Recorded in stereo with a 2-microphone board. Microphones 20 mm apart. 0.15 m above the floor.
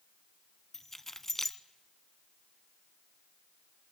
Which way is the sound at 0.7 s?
15° left (ahead or behind).